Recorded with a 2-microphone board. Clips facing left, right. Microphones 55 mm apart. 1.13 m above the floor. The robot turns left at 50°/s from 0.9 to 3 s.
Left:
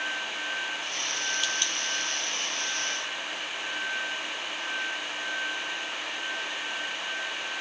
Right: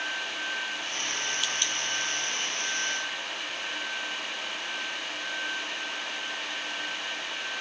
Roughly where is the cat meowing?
No cat meowing in this recording.